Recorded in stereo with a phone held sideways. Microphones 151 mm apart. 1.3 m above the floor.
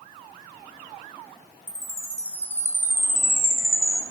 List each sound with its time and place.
1.7 s a chime: 15° left (ahead or behind), 0.6 m